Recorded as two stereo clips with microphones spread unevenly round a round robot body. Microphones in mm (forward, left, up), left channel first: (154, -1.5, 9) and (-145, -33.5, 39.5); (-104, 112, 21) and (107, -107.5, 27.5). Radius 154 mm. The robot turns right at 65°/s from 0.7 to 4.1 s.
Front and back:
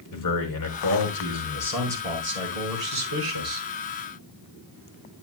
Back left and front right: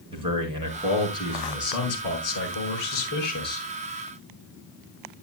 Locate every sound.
0.1 s a man speaking: 30° left, 5.5 m; by 3.7 s 140° right, 5.5 m